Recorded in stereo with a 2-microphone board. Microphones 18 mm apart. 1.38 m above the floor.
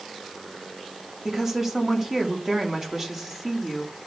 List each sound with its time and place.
1.2 s a woman speaking: 25° right (ahead or behind), 3 m